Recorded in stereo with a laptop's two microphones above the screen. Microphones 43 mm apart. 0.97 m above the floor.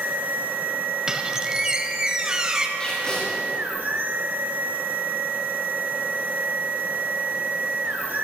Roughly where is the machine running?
Right.